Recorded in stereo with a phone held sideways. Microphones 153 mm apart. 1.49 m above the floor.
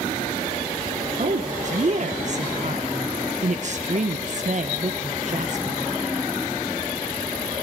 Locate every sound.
1.2 s a woman speaking: 50° right (ahead or behind), 1.2 m